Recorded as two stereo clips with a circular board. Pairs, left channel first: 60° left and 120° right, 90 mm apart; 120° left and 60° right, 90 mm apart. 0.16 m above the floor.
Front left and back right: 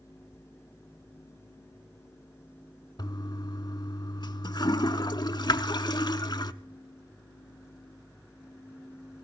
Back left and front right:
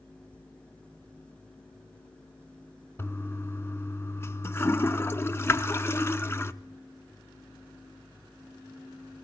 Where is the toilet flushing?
65° left, 0.6 m.